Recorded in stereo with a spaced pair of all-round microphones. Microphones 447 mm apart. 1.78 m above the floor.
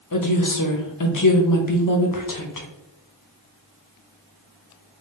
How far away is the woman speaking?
About 0.7 m.